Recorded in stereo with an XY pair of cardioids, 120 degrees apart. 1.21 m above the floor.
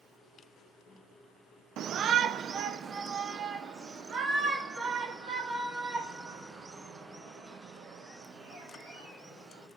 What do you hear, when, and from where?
1.8 s a shout: 60° right, 0.6 m; by 9.7 s 40° right, 5.5 m